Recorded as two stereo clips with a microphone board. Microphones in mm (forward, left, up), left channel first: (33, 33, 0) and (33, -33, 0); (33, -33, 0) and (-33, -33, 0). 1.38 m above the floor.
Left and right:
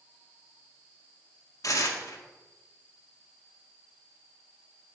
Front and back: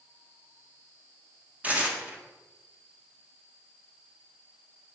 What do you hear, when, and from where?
1.6 s tearing paper: 115° left, 1.9 m